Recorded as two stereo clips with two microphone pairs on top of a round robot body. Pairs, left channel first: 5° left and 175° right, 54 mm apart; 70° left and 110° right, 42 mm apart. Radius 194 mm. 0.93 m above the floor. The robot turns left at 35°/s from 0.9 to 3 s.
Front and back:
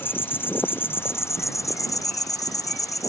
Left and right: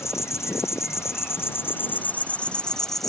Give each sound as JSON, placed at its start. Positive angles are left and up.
{"t": 0.0, "sound": "an insect", "azimuth_deg": 55}